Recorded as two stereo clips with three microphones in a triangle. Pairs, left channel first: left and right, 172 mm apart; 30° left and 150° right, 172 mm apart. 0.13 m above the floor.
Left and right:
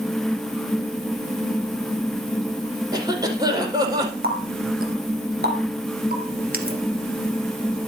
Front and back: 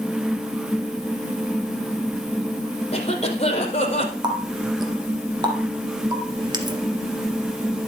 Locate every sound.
2.9 s a cough: 25° right, 5 m
4.2 s a running tap: 85° right, 2 m